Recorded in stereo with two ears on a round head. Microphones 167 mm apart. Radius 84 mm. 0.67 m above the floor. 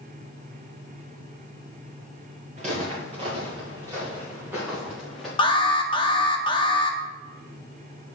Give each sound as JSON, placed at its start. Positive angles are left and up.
{"t": 2.6, "sound": "footsteps", "side_deg": -40, "distance_m": 3.0}
{"t": 5.4, "sound": "an alarm", "side_deg": 25, "distance_m": 0.5}